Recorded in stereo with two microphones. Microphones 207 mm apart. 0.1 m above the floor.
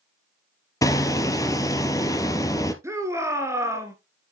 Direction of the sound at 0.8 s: 15° left (ahead or behind).